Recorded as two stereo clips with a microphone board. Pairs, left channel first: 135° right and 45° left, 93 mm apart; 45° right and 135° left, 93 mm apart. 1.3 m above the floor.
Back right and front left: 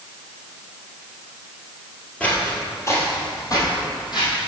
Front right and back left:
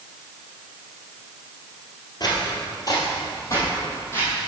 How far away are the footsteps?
About 1.9 m.